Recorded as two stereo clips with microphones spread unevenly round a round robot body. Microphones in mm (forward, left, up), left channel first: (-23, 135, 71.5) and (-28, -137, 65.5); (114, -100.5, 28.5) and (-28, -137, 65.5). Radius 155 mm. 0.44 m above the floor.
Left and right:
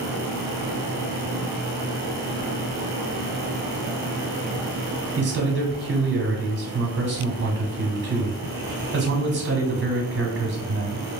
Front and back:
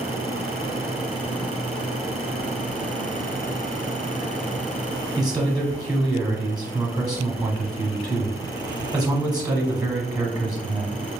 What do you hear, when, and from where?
5.2 s a man speaking: 95° right, 1.0 m